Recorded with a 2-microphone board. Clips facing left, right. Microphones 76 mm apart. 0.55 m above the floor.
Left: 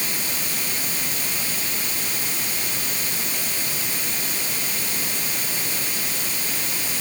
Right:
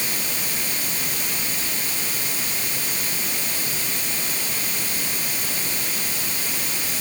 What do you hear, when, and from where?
Only background noise.